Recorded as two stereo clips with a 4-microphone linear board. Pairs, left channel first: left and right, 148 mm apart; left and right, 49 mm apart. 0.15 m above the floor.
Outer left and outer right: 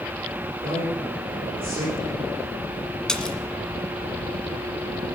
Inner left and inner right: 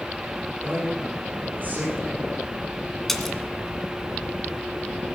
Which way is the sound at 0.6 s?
35° right (ahead or behind).